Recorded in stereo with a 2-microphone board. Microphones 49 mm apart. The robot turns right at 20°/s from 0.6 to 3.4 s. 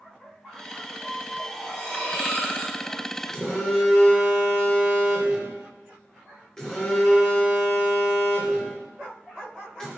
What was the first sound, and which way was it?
Cutlery clinking, 5° right (ahead or behind).